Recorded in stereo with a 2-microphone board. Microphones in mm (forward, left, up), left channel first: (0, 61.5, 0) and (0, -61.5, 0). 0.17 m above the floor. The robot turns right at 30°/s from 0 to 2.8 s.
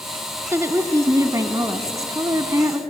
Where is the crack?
No crack in this recording.